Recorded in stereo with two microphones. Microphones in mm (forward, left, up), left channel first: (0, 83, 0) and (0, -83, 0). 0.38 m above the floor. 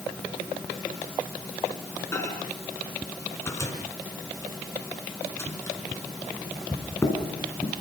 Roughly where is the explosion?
I don't hear an explosion.